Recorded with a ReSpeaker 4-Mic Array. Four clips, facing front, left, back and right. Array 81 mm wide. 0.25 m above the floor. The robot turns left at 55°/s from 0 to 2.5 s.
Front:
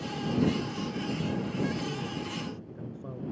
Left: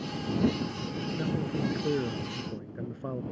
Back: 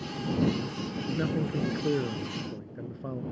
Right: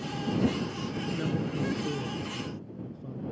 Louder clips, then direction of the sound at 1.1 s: Left 1 dB, back 5 dB; 175° right.